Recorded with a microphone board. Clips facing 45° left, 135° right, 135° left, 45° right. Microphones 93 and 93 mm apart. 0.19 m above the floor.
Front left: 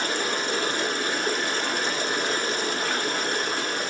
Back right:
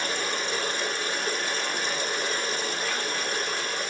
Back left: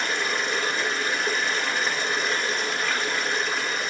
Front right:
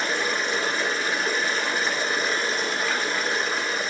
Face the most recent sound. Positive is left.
turn(degrees=40)